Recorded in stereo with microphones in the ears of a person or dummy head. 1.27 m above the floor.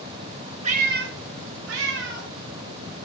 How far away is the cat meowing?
About 1.5 m.